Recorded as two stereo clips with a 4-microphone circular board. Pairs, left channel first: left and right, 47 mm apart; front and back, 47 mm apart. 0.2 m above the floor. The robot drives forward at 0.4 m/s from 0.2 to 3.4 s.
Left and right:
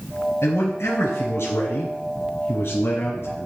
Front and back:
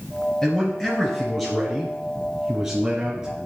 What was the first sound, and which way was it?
A man speaking, 85° left.